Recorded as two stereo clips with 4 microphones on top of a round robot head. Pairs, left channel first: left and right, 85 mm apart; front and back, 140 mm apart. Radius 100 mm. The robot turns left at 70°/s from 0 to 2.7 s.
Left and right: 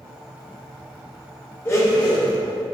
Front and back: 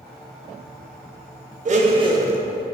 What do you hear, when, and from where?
1.6 s a blender: 155° left, 0.5 m; by 2.4 s 100° left, 0.5 m